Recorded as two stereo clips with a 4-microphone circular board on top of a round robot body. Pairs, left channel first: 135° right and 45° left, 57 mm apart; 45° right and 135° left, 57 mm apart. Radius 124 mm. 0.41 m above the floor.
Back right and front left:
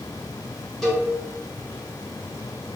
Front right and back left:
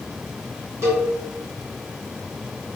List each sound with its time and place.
0.8 s a cowbell: 145° left, 1.3 m